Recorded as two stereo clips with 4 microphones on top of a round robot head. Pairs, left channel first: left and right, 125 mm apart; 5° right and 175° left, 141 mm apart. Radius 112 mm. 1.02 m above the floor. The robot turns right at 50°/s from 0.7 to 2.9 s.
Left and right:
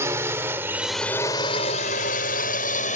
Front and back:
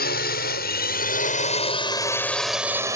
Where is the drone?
15° right; by 3.0 s 105° left.